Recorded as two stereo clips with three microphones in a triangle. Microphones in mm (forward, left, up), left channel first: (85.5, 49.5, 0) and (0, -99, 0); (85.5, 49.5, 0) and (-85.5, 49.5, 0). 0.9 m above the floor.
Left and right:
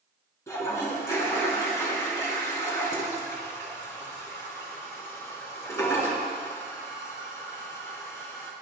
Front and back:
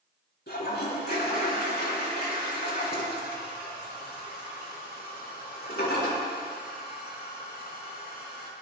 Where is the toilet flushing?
15° right, 4 m.